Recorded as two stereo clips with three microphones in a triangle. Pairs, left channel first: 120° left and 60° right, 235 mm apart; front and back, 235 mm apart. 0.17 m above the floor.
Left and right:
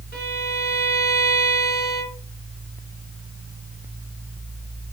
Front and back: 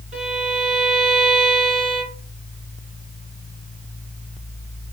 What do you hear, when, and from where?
0.1 s a violin: 140° left, 2 m